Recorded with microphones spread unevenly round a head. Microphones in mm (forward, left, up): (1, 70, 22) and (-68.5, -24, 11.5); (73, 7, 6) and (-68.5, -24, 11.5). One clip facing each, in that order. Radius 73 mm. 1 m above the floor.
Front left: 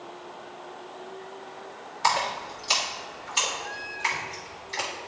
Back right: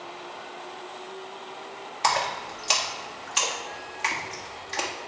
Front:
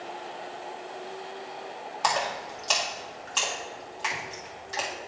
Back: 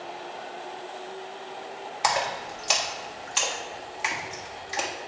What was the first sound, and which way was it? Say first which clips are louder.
A splash: even, back 1 dB; 90° right.